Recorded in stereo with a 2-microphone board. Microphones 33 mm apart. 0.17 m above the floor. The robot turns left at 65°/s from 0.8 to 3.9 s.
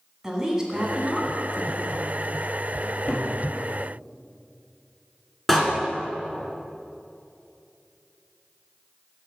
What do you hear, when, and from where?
0.2 s a woman speaking: 20° right (ahead or behind), 1.5 m; by 2.1 s 10° left (ahead or behind), 1.5 m
2.8 s a cupboard door: 60° left (ahead or behind), 3.5 m; by 3.3 s 35° left (ahead or behind), 3.5 m
5.5 s a door slam: 5° left (ahead or behind), 1.7 m